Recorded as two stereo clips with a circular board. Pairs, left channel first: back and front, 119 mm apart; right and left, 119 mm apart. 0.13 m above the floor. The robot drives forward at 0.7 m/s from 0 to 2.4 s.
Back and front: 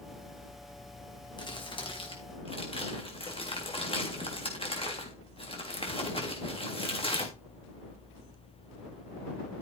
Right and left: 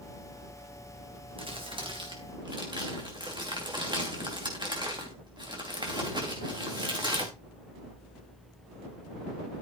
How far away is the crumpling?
About 2.5 m.